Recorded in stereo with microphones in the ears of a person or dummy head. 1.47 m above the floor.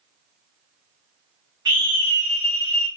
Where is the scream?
20° right (ahead or behind), 3.5 m.